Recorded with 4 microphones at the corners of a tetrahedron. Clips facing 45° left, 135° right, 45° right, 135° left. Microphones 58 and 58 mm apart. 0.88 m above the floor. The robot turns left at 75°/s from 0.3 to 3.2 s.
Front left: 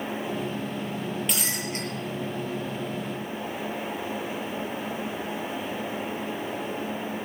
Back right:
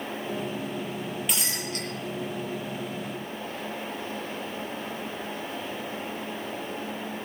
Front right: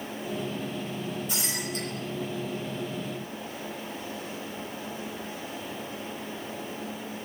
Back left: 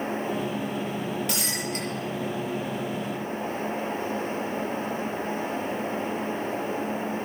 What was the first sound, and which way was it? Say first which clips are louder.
Breaking glass: front left 2 dB, back left 3 dB; 135° left.